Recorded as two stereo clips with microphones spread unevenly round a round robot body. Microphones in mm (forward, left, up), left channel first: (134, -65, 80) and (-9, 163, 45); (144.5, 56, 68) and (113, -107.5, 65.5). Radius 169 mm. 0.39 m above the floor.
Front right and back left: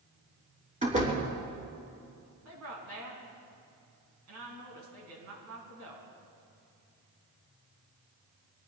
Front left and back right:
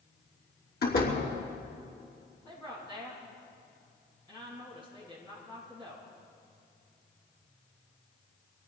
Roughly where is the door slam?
Ahead left.